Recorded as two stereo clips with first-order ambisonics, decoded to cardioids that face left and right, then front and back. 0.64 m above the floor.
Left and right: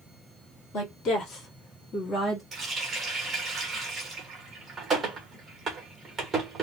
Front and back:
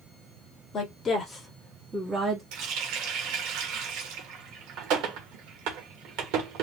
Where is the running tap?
165° right, 1.4 m.